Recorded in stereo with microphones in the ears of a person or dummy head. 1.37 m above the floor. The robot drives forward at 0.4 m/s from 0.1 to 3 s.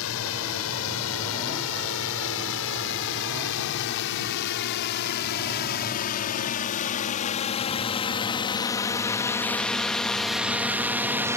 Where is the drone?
75° left (ahead or behind); by 11.4 s 15° right (ahead or behind).